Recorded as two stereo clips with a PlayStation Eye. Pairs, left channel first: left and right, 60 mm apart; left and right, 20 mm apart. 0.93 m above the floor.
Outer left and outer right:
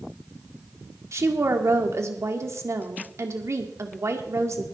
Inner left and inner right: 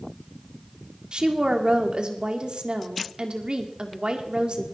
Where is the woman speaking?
50° right (ahead or behind), 1.9 m.